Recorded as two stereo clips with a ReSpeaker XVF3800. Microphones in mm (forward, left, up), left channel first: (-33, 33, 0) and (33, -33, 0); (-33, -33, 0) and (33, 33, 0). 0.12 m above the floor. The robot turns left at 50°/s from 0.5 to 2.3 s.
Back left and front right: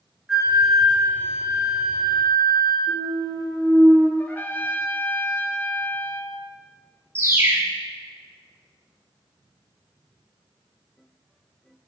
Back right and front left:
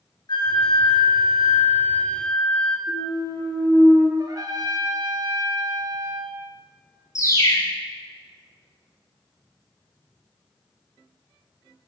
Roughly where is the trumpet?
Left.